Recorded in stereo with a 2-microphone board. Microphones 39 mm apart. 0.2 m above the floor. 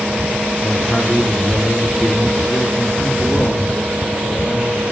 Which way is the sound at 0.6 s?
20° left (ahead or behind).